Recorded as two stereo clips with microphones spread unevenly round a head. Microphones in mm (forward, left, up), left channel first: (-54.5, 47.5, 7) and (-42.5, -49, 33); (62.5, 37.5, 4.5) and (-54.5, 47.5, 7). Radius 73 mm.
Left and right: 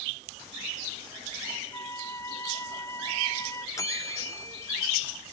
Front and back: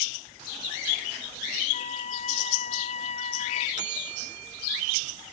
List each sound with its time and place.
1.7 s a flute: 20° left
3.8 s a bell: 155° left